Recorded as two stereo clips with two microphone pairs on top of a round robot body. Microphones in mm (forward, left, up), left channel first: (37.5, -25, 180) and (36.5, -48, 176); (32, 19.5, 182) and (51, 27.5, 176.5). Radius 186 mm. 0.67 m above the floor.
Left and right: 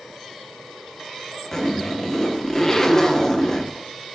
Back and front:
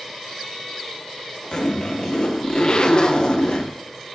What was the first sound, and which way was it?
A zipper, 160° left.